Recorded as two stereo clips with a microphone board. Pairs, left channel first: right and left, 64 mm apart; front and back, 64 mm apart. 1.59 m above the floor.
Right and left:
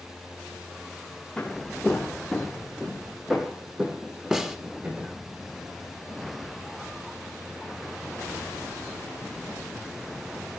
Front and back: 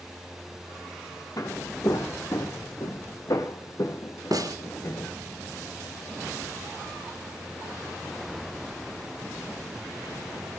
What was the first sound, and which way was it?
Footsteps, 15° right.